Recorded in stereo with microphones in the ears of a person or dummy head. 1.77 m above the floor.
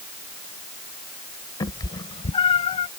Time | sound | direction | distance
1.6 | a cat meowing | 20° left (ahead or behind) | ?